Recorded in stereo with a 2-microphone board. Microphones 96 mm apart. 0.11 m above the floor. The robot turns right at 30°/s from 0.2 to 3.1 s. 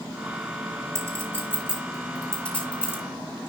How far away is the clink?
About 5 m.